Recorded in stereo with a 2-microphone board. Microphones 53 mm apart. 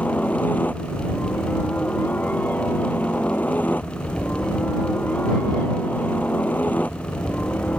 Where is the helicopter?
35° left (ahead or behind).